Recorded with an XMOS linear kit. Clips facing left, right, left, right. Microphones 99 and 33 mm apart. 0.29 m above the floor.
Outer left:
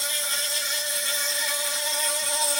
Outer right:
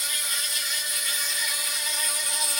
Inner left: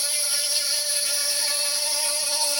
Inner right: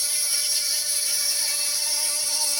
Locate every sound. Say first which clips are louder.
0.0 s an insect: outer left 3 dB, inner left 1 dB; 30° left (ahead or behind), 0.9 m